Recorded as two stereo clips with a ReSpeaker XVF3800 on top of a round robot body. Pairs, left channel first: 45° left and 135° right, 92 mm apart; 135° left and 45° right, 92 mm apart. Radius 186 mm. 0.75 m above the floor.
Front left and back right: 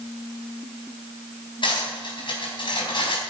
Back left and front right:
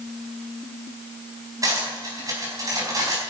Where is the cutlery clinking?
10° left, 4.5 m.